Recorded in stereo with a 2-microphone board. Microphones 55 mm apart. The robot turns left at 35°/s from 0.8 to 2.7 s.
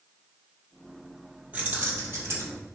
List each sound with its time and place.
1.5 s keys jangling: 25° right, 3 m; by 2.6 s 65° right, 3 m